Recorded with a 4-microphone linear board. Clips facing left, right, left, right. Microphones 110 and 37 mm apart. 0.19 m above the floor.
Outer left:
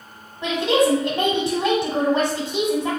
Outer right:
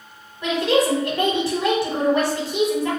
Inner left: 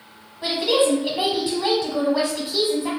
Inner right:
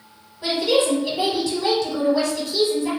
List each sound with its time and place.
0.4 s a woman speaking: 25° left (ahead or behind), 1.0 m